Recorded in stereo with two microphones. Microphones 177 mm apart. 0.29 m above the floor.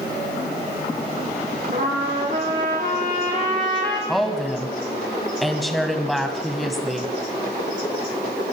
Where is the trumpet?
50° right (ahead or behind), 3.5 m.